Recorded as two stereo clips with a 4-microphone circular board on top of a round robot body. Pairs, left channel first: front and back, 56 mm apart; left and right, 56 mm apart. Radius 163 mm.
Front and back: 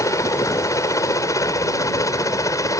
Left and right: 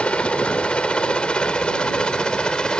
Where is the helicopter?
20° left; by 2.8 s 15° left.